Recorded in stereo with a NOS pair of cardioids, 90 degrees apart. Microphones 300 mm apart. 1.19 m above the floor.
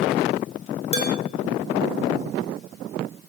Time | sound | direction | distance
0.9 | dishes clattering | 20° left | 2 m